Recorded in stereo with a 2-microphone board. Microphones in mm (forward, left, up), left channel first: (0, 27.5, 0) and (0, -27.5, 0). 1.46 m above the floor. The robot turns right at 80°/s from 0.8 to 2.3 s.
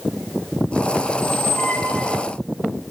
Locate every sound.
1.1 s a squeak: 95° left, 3 m; by 2.3 s 170° right, 3 m